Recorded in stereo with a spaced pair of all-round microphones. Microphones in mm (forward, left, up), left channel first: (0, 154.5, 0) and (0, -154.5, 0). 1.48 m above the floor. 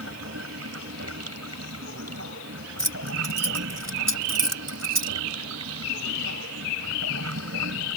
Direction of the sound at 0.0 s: 50° right (ahead or behind).